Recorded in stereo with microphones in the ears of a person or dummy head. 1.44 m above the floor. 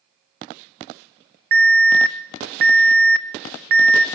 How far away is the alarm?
About 0.7 m.